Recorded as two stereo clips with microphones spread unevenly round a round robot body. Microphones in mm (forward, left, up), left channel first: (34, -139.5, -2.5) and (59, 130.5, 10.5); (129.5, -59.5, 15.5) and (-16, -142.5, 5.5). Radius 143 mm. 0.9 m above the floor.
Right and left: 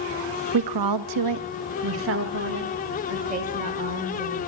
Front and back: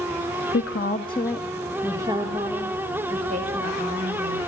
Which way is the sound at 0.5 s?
70° left.